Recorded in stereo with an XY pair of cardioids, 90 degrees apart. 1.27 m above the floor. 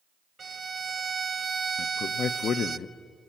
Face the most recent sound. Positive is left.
turn(degrees=60)